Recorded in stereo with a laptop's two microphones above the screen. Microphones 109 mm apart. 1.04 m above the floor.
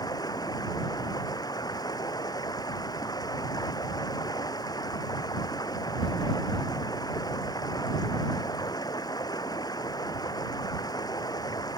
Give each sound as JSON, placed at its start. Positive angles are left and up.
{"t": 0.0, "sound": "running water", "side_deg": 35}